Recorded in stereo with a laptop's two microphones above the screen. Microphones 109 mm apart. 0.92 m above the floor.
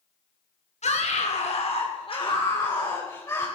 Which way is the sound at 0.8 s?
80° left.